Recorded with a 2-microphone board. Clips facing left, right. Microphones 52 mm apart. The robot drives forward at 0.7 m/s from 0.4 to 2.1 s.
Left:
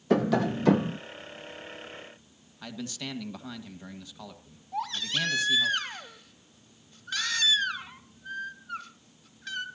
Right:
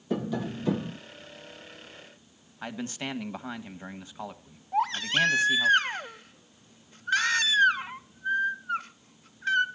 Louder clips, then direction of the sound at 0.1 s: Left 6 dB; 80° left.